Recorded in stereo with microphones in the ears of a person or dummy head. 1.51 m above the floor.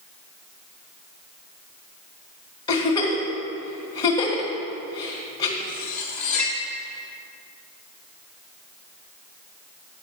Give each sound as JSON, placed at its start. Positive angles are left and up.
{"t": 2.7, "sound": "a giggle", "side_deg": 20, "distance_m": 1.5}
{"t": 5.6, "sound": "cutlery clinking", "side_deg": 10, "distance_m": 1.4}